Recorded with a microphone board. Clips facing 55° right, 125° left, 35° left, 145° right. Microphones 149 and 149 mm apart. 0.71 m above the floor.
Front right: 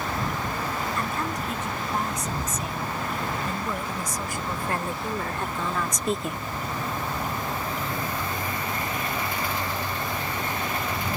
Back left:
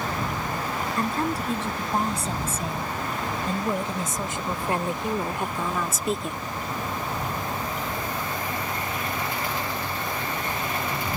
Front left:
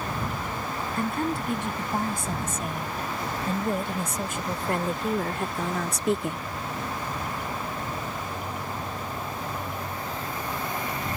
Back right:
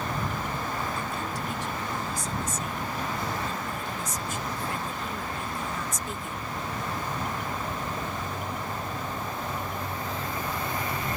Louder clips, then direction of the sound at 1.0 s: Back left 3 dB, front left 5 dB; 65° left.